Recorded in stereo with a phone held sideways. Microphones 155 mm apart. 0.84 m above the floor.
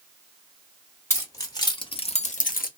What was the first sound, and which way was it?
Keys jangling, 15° left (ahead or behind).